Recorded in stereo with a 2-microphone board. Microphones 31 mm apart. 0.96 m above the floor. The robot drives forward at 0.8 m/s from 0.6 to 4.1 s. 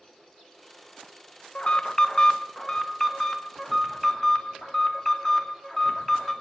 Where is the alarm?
35° left (ahead or behind), 0.7 m; by 6.3 s 10° left (ahead or behind), 2 m.